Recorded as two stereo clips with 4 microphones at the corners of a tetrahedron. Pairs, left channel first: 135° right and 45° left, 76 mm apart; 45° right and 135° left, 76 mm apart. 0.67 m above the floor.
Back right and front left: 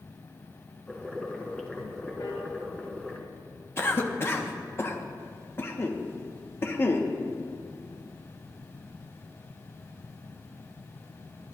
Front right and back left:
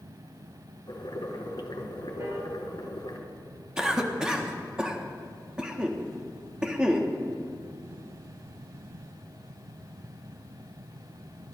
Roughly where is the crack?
No crack in this recording.